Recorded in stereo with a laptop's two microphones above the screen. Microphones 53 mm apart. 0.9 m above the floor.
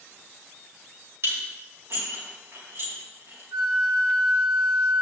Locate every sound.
1.2 s dishes clattering: 55° right (ahead or behind), 4 m
3.5 s a flute: 85° right, 4.5 m